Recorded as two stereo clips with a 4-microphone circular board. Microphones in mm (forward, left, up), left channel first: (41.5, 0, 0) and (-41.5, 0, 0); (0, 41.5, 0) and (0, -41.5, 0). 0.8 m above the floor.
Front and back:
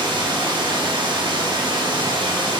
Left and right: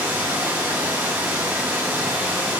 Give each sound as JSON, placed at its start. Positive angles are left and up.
{"t": 0.0, "sound": "running water", "azimuth_deg": -155, "distance_m": 0.7}